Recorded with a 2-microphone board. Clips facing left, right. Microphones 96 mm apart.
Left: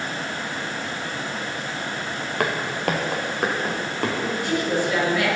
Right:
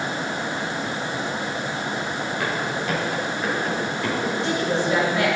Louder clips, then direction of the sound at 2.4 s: Left 5 dB; 60° left (ahead or behind).